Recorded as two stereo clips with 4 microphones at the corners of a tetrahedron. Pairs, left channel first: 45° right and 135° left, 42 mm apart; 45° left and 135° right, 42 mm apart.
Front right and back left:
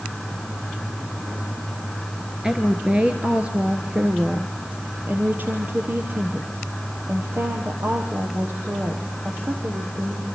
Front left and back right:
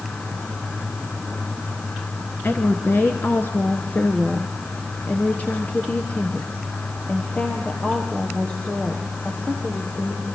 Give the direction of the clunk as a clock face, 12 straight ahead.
No clunk in this recording.